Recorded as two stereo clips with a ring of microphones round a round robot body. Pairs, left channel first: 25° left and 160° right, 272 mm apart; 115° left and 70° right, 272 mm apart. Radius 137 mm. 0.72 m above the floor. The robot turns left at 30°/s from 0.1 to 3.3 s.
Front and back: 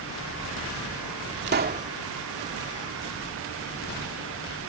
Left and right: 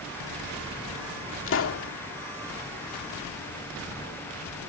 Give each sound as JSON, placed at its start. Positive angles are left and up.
{"t": 1.5, "sound": "a pop", "azimuth_deg": 155}